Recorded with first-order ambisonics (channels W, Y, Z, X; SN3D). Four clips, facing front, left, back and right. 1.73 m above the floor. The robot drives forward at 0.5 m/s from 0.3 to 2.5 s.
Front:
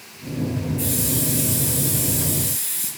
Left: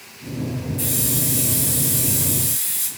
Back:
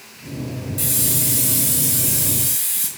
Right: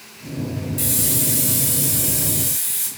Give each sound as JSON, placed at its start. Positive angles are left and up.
{"t": 0.8, "sound": "a hiss", "azimuth_deg": -135, "distance_m": 1.6}